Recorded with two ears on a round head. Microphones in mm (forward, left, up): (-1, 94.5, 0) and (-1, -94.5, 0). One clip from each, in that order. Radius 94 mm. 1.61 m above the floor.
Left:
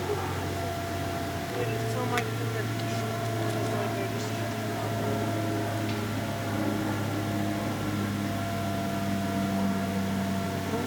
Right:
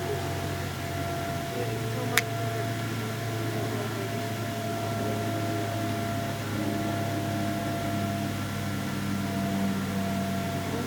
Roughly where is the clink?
No clink in this recording.